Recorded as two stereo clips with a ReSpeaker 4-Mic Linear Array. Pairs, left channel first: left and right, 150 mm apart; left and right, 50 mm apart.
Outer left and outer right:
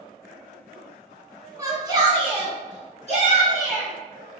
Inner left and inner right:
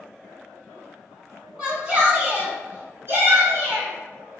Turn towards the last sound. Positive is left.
turn(degrees=-55)  # may be behind; listen again after turning